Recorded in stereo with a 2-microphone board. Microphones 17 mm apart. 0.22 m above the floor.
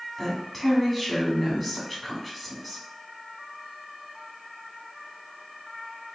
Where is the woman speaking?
Centre (ahead or behind), 2.0 m.